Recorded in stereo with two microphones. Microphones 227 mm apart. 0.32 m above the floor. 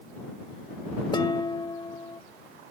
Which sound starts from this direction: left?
Dishes clattering, at 1.1 s.